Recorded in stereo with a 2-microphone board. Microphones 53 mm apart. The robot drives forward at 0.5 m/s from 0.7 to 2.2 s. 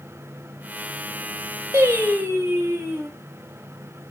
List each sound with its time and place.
1.7 s singing: 55° right (ahead or behind), 0.9 m; by 3.1 s 50° right (ahead or behind), 0.9 m